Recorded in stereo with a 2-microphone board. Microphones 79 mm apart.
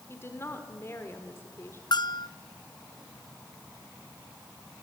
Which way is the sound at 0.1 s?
30° left (ahead or behind).